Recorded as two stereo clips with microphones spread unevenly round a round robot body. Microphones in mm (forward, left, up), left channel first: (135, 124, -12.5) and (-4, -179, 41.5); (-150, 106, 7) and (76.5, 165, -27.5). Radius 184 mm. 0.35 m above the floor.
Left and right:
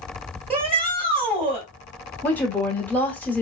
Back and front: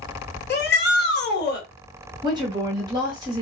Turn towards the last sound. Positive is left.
turn(degrees=10)